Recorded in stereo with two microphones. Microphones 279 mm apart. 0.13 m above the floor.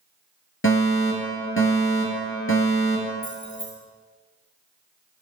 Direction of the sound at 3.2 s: 85° left.